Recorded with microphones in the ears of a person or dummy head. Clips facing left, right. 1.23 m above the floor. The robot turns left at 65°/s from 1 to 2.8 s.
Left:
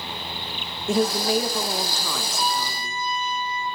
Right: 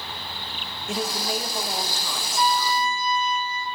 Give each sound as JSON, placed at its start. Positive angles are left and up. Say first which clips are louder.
{"t": 0.9, "sound": "a woman speaking", "louder": "left 7 dB", "azimuth_deg": 135, "distance_m": 1.4}
{"t": 2.4, "sound": "a trumpet", "louder": "right 8 dB", "side_deg": -55, "distance_m": 1.9}